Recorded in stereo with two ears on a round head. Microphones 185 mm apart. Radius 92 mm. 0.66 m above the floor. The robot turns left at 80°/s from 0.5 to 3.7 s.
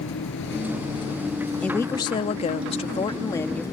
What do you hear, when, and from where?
0.0 s a vehicle: 65° left (ahead or behind); by 3.7 s 20° left (ahead or behind)
1.6 s a woman speaking: 170° left; by 3.6 s 10° left